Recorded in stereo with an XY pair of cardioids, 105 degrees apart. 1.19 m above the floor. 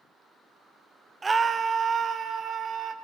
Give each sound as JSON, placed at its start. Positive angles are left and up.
{"t": 1.2, "sound": "a scream", "azimuth_deg": -25, "distance_m": 0.6}